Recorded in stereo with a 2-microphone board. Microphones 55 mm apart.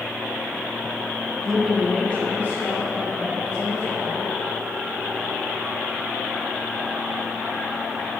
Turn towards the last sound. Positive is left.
turn(degrees=45)  # may be behind; listen again after turning